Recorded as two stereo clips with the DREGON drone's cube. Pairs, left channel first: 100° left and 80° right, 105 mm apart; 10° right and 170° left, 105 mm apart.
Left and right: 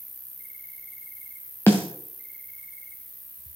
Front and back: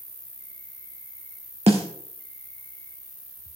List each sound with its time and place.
0.0 s an insect: 10° left, 1.2 m
1.7 s a snare drum: 165° left, 2 m